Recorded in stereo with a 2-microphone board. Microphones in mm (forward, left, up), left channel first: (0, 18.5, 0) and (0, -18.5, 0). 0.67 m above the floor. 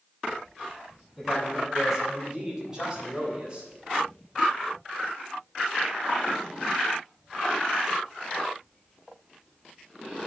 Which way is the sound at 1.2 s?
5° right (ahead or behind).